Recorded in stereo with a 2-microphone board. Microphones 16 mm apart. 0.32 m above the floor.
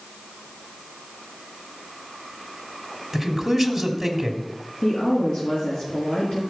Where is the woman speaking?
75° left (ahead or behind), 5 m.